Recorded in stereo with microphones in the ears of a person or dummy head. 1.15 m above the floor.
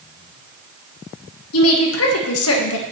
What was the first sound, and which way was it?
A woman speaking, 70° left (ahead or behind).